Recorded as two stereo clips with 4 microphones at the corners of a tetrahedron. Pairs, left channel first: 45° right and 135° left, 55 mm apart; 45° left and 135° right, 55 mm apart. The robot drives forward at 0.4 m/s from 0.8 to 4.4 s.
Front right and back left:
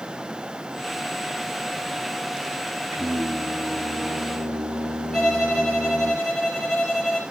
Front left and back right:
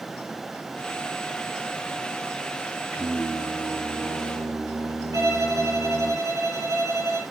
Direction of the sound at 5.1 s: 135° right.